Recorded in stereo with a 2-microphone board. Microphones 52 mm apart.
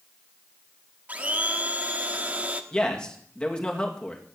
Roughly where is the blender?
Right.